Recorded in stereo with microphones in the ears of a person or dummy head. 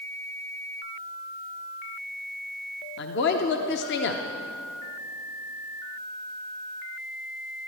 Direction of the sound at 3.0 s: 55° left (ahead or behind).